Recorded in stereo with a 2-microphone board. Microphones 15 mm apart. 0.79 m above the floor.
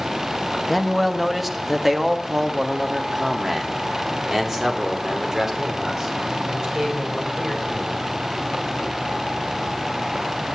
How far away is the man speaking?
About 1.1 m.